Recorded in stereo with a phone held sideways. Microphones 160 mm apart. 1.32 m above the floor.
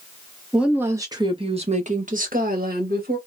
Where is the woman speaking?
5° right (ahead or behind), 0.9 m; by 3.2 s 75° right (ahead or behind), 1.5 m.